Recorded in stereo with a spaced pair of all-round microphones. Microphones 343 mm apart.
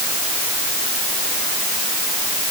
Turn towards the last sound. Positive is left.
No sound to turn to.